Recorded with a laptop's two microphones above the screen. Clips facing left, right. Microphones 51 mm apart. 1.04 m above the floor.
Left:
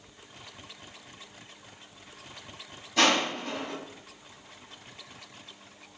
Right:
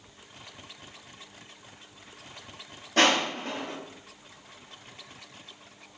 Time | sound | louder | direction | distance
3.0 | crushing | right 1 dB | 65° right (ahead or behind) | 2.0 m